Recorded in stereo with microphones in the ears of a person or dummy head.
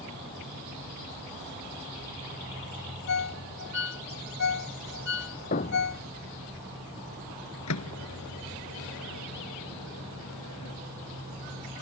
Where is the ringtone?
65° left (ahead or behind).